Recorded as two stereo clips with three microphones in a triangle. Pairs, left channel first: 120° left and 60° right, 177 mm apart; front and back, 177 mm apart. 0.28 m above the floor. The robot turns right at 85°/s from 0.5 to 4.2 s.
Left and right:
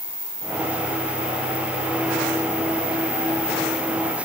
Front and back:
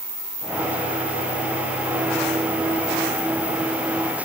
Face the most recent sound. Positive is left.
No sound to turn to.